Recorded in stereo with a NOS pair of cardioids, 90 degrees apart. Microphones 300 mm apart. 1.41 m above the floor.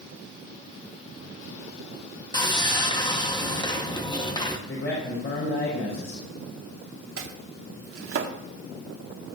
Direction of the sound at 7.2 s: 45° right.